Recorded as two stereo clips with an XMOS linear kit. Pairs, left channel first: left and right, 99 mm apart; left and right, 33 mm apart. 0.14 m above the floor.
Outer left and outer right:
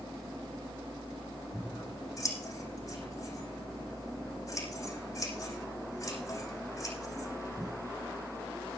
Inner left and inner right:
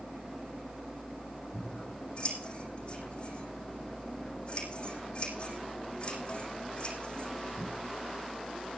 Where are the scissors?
35° left (ahead or behind), 7 m.